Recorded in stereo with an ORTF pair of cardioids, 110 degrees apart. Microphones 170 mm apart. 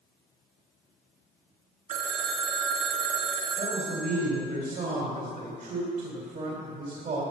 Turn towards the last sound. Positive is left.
turn(degrees=-55)